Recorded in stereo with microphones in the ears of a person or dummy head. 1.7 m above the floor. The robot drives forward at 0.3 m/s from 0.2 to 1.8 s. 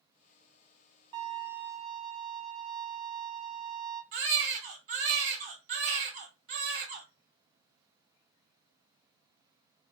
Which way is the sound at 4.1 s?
50° right (ahead or behind).